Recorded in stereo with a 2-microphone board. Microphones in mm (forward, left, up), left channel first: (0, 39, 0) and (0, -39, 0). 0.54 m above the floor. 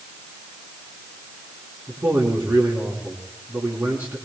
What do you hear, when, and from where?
1.9 s a man speaking: 20° right (ahead or behind), 5 m